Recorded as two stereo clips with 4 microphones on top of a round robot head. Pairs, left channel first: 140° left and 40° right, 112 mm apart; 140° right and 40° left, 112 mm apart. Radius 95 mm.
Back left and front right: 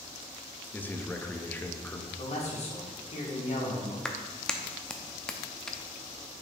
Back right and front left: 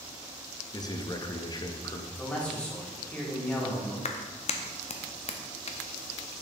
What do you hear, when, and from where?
0.7 s a man speaking: 155° right, 0.8 m
2.2 s a man speaking: 140° left, 2 m
4.0 s a clap: 135° right, 0.7 m